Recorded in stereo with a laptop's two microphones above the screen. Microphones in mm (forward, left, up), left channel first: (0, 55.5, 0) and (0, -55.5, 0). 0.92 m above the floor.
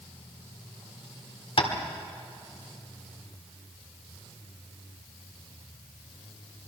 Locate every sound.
1.6 s tapping: 55° left (ahead or behind), 1.6 m